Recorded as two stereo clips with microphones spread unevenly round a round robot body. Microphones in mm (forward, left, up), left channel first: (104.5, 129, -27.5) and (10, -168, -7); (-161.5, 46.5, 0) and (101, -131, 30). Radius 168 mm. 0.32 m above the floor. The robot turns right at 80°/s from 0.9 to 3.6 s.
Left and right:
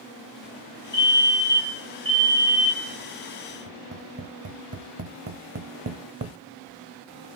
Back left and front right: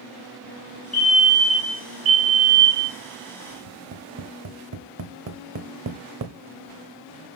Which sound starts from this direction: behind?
A fire alarm, at 0.9 s.